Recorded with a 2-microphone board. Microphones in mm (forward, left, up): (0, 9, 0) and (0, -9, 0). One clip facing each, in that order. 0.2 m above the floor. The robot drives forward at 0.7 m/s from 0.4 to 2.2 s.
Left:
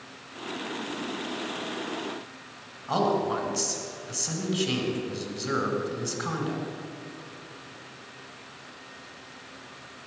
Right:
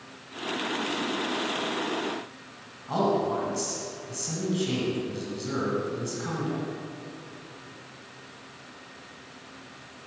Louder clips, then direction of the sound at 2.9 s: Even; 25° left (ahead or behind).